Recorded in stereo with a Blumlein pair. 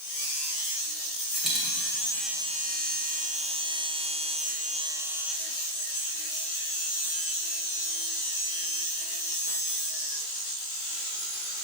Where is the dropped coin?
Straight ahead, 2.5 m.